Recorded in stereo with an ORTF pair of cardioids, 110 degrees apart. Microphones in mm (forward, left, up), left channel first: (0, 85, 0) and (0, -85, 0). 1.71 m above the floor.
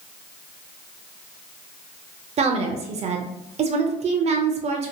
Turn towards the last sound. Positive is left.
turn(degrees=-40)